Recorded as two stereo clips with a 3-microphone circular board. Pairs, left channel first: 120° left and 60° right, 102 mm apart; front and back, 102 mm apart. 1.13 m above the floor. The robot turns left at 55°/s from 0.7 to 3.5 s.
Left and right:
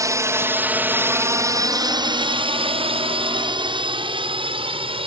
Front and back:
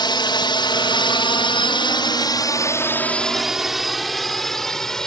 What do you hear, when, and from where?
0.0 s a drone: 15° right; by 5.1 s 85° right